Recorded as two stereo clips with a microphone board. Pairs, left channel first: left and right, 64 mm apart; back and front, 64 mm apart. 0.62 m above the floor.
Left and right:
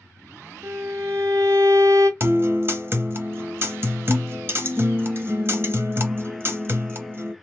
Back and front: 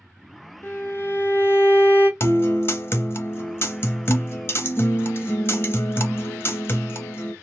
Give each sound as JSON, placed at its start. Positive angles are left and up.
{"t": 0.6, "sound": "a violin", "azimuth_deg": -130, "distance_m": 0.7}
{"t": 2.2, "sound": "a guitar", "azimuth_deg": -135, "distance_m": 0.7}